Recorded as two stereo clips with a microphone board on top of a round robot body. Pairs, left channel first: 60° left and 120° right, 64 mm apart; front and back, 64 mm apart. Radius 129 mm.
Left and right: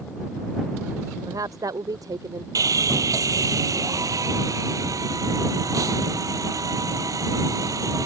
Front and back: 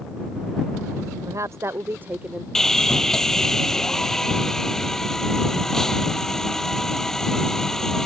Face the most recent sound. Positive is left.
turn(degrees=-80)